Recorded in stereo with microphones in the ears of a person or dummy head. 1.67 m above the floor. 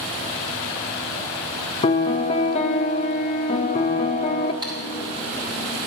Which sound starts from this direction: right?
Typing on a keyboard, at 4.6 s.